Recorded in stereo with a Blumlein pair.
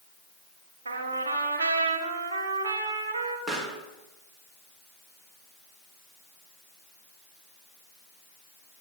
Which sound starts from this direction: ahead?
A pop, at 3.5 s.